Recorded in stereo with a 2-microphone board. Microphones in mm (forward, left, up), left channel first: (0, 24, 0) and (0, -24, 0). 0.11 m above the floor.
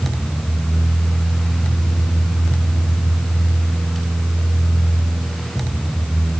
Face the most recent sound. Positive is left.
No sound to turn to.